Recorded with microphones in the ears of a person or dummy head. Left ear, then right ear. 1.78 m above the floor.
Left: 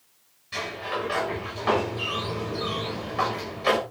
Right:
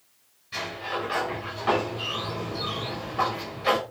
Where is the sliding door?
15° left (ahead or behind), 6 m.